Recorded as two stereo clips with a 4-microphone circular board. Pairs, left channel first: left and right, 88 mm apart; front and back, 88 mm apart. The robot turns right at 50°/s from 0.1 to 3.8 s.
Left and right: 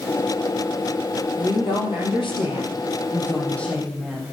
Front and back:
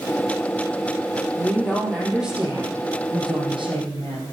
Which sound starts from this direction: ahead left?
A woman speaking, at 1.4 s.